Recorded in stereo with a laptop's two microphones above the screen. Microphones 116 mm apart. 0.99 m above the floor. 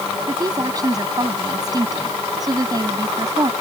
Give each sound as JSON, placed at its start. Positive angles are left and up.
{"t": 0.3, "sound": "a woman speaking", "side_deg": -35}